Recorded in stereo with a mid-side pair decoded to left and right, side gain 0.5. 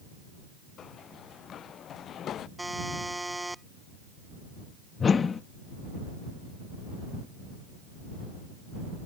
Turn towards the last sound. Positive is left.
turn(degrees=40)